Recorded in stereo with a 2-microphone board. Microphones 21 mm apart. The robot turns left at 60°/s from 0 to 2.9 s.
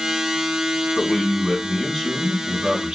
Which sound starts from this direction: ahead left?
A man speaking, at 1.0 s.